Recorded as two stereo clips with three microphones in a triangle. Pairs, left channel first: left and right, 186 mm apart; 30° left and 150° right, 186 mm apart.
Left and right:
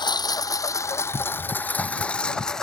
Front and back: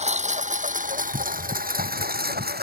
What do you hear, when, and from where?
0.0 s a lawn mower: 155° left; by 2.6 s 175° left